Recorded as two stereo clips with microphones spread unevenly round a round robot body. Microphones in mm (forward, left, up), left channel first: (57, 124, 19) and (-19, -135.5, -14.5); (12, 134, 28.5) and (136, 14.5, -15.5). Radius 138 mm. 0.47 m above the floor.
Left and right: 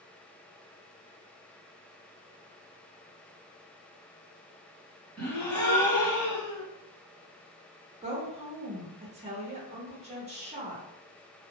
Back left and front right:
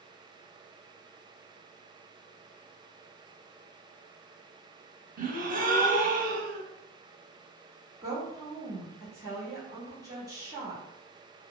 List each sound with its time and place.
5.2 s a gasp: 10° right, 1.0 m
8.0 s a woman speaking: 70° right, 0.9 m